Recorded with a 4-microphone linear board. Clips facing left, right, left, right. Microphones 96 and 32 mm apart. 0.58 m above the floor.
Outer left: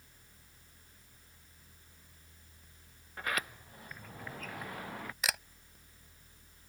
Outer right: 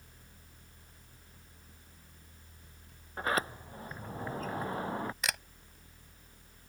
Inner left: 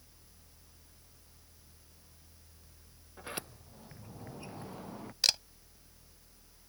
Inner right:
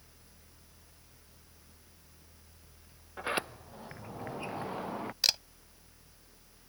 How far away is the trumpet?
No trumpet in this recording.